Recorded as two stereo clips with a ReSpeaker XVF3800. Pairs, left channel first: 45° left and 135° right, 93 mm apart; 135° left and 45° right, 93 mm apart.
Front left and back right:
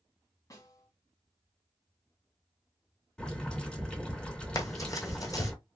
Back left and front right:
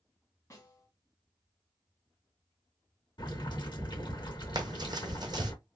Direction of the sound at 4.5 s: 5° right.